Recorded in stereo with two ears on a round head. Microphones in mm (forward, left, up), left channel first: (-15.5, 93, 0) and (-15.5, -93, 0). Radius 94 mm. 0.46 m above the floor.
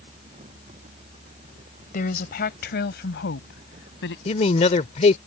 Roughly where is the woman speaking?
Left.